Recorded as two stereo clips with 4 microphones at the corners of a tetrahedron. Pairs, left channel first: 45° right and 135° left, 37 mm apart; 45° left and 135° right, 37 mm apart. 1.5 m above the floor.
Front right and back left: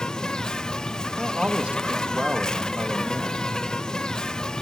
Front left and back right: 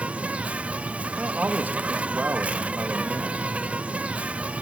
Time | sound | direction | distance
0.0 | an insect | 110° right | 0.8 m
1.2 | a man speaking | 170° right | 1.8 m